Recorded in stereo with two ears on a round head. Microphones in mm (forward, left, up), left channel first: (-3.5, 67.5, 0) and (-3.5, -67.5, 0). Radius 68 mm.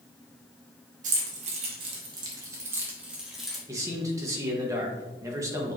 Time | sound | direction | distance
1.0 | keys jangling | 55° right (ahead or behind) | 1.8 m
3.7 | a man speaking | 20° right (ahead or behind) | 1.5 m